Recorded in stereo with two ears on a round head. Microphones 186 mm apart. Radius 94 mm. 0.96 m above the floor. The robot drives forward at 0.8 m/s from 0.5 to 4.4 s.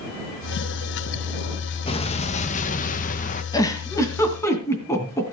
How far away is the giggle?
About 1.9 m.